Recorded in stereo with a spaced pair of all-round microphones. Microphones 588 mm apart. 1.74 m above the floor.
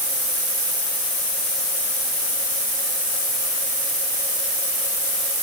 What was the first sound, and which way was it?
Only background noise.